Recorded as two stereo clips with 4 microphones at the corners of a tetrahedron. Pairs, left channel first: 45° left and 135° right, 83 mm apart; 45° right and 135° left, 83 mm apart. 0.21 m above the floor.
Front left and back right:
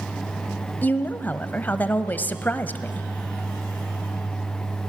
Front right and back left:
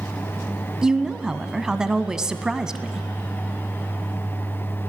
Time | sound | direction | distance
0.8 | a woman speaking | 65° left | 1.0 m